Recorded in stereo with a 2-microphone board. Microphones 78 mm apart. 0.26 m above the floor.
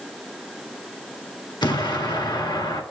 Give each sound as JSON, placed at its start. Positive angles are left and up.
{"t": 1.6, "sound": "an explosion", "side_deg": 75, "distance_m": 1.5}